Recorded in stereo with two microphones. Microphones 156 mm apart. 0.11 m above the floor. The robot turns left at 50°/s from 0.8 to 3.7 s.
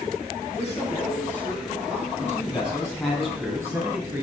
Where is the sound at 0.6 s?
40° left, 4 m; by 2.1 s 25° right, 4 m.